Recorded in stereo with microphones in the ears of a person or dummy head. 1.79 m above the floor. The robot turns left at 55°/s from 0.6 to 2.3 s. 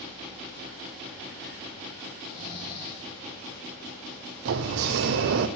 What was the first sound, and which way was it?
Snoring, 30° left (ahead or behind).